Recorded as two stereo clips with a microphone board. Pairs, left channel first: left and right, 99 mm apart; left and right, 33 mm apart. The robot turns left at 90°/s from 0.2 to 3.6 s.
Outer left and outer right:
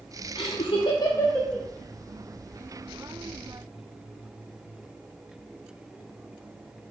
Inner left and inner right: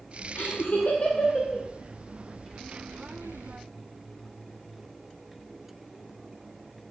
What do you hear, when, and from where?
0.3 s laughter: 60° left (ahead or behind), 0.8 m; by 1.6 s 10° right (ahead or behind), 0.8 m